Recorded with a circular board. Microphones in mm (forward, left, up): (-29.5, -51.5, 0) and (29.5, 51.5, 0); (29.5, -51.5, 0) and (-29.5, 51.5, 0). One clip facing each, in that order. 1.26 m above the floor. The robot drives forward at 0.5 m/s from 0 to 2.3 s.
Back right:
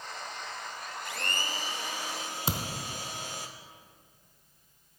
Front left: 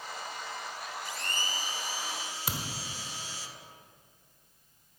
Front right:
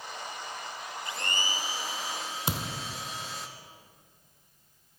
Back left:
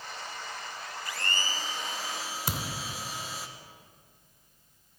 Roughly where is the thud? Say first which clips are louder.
Back right 5 dB, front right 2 dB; right.